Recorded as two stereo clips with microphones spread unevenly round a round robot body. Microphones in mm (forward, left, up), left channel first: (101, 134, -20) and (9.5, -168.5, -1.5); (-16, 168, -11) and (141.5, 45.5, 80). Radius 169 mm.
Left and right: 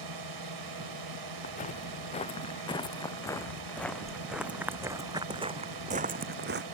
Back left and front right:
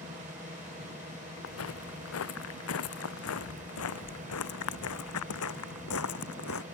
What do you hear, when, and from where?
0.0 s a drone: 110° right
1.4 s footsteps: 145° left; by 6.7 s 165° right